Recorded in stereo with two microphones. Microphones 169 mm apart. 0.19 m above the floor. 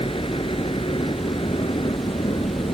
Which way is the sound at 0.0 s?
30° left (ahead or behind).